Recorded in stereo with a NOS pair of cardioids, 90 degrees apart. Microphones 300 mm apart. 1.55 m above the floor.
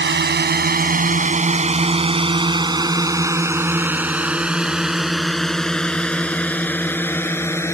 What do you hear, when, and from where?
0.0 s a drone: 35° right; by 7.7 s 10° left